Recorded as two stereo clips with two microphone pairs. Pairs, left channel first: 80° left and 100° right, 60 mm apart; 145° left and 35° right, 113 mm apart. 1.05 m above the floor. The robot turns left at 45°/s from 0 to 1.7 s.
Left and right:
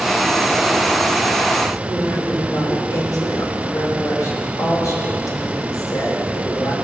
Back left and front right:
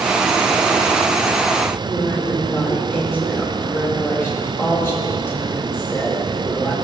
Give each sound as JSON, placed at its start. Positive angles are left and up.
{"t": 1.8, "sound": "a woman speaking", "azimuth_deg": 75, "distance_m": 4.0}